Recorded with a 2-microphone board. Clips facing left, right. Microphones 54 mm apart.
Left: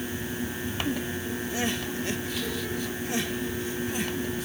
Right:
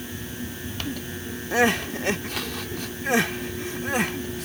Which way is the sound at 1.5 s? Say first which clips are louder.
Right 11 dB; 70° right (ahead or behind).